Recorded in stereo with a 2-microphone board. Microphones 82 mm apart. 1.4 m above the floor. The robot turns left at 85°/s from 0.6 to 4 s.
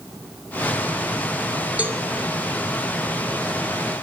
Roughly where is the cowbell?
Centre.